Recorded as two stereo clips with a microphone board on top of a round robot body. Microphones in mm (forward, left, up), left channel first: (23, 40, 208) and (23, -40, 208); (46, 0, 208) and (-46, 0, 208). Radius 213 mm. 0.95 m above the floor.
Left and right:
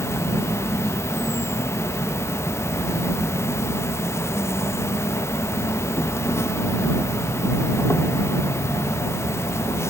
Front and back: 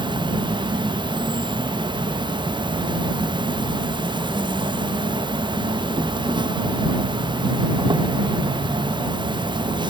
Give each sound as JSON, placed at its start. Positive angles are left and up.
{"t": 0.0, "sound": "an insect", "azimuth_deg": 145}